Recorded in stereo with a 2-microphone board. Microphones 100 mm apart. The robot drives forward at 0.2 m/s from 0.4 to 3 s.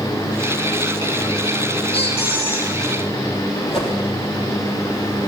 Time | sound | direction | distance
1.9 | a squeak | 80° left | 2.5 m
3.7 | a whoosh | 65° left (ahead or behind) | 3.5 m